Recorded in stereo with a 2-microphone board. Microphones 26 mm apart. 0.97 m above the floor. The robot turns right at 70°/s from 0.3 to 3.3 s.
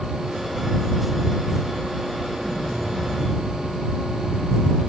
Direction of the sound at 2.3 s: 25° left.